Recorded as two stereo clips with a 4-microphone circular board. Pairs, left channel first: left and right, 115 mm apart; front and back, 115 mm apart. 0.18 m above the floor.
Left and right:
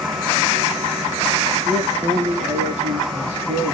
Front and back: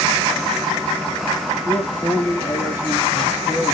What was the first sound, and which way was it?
A man speaking, 100° right.